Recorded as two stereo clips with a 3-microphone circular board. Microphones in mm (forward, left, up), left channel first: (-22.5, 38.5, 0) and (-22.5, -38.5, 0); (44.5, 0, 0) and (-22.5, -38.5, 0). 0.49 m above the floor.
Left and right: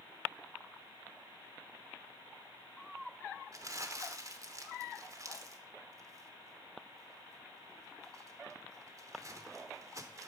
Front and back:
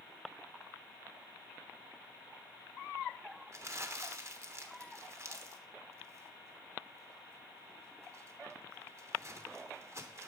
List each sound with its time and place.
3.5 s crumpling: 115° right, 1.0 m